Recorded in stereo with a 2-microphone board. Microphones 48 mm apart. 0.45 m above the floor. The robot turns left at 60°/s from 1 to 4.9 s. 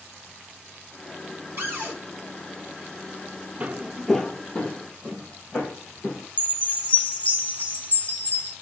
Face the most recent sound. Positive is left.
turn(degrees=35)  # may be behind; listen again after turning